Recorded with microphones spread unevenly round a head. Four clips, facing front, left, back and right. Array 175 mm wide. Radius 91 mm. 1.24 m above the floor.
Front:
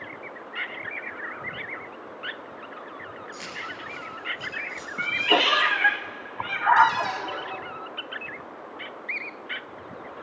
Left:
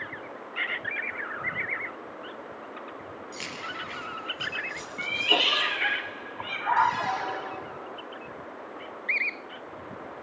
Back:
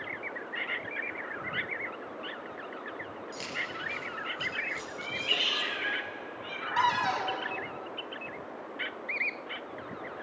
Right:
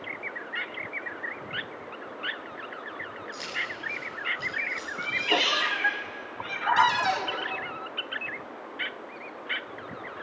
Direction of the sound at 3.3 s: 160° left.